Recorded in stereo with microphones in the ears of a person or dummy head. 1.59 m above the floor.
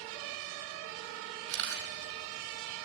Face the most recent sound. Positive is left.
turn(degrees=-65)  # may be behind; listen again after turning